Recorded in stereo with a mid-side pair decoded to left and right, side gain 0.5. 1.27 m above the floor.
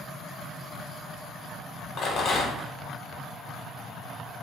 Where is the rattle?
55° left, 1.0 m.